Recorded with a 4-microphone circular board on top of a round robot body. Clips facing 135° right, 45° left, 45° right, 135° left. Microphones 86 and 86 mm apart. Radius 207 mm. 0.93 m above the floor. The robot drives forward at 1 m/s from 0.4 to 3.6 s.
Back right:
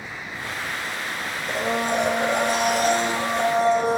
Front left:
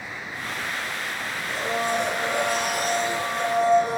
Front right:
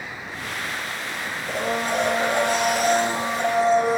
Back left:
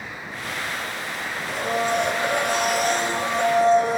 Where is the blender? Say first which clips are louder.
Back right 2 dB, back left 1 dB; 85° right, 2.5 m; by 4.0 s 130° right, 3 m.